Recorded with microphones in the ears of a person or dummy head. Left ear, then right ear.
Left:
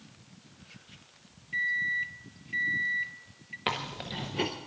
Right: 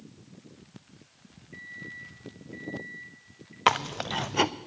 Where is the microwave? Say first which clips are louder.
Left 14 dB; 50° left (ahead or behind), 0.7 m.